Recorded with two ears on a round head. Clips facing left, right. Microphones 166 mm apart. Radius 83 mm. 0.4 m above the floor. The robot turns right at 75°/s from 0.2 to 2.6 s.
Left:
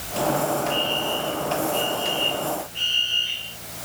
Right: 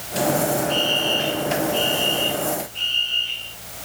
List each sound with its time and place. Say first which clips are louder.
0.7 s a fire alarm: right 2 dB; 130° right; by 3.6 s 15° left